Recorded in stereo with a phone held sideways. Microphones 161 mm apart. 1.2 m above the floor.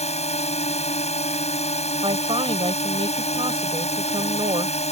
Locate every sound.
0.0 s a drone: 40° left (ahead or behind)
2.0 s a woman speaking: 35° right (ahead or behind)